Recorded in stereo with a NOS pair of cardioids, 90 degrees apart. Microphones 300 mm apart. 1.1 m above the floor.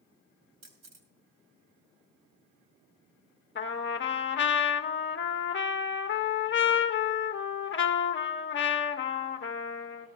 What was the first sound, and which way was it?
A camera shutter, 50° right.